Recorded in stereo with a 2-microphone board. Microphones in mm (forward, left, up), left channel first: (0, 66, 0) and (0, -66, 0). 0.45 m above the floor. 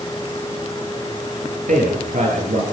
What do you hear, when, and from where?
1.7 s a man speaking: 75° right (ahead or behind), 8.5 m